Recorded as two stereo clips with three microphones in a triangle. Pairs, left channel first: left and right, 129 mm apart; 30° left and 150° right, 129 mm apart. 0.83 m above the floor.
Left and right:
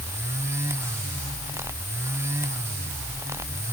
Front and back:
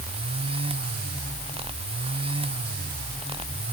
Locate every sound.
Only background noise.